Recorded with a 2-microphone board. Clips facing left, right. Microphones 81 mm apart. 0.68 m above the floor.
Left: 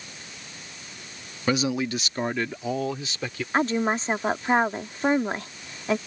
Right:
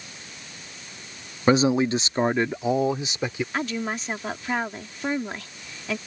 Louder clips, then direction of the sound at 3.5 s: Left 10 dB; 35° left (ahead or behind).